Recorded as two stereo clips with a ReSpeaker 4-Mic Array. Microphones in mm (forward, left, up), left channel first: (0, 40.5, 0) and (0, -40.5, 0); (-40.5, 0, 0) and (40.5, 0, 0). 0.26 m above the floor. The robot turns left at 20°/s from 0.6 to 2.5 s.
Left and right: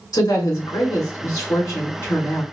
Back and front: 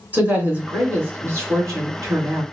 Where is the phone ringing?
No phone ringing in this recording.